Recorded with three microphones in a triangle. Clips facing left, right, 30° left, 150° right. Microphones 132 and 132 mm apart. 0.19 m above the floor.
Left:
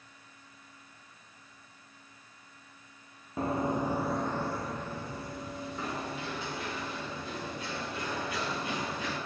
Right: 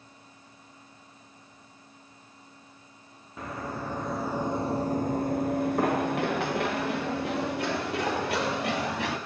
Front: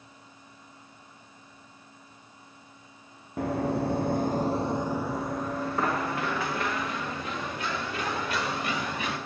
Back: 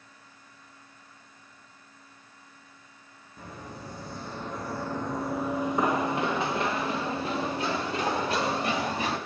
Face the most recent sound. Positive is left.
turn(degrees=-95)